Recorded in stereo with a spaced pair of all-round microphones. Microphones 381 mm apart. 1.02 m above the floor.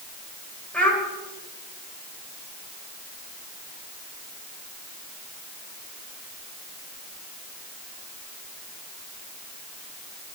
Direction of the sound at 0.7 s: 5° left (ahead or behind).